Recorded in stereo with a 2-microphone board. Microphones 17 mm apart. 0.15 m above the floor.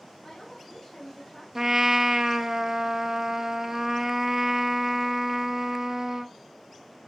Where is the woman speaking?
10° left (ahead or behind), 5.5 m.